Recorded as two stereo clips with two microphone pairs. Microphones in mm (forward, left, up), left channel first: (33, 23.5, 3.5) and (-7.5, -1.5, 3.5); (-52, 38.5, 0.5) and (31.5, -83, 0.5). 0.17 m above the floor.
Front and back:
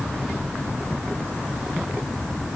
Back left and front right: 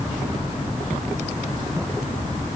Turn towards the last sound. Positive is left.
No sound to turn to.